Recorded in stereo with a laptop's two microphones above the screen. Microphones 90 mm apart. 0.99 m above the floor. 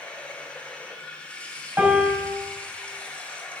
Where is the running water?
15° left (ahead or behind), 4 m.